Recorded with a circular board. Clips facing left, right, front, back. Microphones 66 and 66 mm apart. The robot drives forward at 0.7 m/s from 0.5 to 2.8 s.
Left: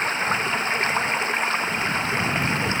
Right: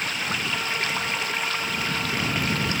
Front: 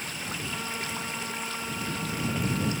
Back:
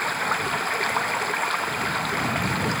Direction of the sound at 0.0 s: 150° left.